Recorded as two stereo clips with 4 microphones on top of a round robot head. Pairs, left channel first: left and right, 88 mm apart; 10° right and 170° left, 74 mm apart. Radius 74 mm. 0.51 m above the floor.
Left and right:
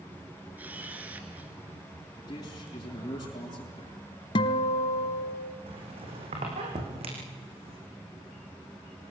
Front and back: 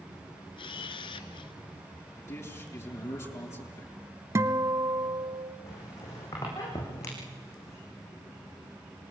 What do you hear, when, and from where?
0.6 s a camera shutter: 15° right, 1.2 m
2.2 s a man speaking: 35° left, 7.5 m
4.3 s a guitar: 120° left, 1.0 m
5.7 s a squeak: 65° right, 6.5 m